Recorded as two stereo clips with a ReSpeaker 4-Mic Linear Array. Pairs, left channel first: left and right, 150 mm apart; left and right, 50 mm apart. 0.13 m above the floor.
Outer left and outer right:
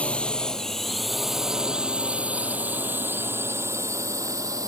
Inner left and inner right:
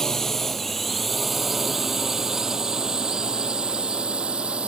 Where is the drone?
10° left (ahead or behind); by 4.7 s 25° right (ahead or behind).